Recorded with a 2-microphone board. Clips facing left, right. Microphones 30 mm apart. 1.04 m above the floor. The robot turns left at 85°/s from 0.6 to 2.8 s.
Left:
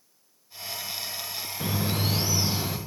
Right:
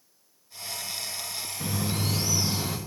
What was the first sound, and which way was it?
A bird, 100° left.